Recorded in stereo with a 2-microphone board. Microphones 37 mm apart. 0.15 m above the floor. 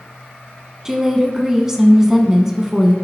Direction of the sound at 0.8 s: 10° right (ahead or behind).